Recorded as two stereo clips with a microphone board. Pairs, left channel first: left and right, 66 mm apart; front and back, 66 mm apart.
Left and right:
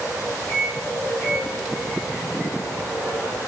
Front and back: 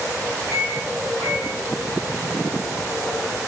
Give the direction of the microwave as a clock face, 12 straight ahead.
11 o'clock.